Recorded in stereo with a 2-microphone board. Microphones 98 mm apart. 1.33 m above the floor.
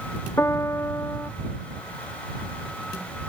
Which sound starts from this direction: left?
A piano, at 0.4 s.